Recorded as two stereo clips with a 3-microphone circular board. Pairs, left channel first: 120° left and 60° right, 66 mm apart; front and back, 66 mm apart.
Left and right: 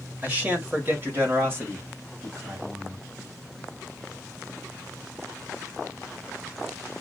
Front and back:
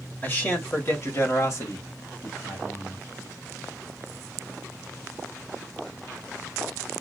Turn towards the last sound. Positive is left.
turn(degrees=-10)